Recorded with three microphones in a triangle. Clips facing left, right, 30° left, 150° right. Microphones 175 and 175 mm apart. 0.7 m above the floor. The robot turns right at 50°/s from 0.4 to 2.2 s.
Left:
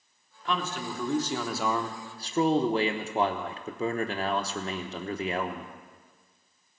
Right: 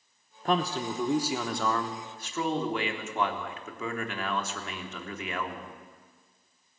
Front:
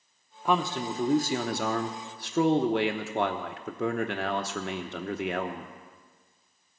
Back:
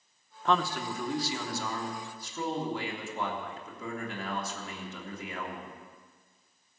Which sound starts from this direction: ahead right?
A man speaking, at 0.5 s.